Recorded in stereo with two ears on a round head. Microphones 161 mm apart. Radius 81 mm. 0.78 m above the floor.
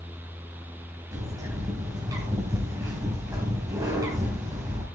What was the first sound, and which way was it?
A bird, 20° right (ahead or behind).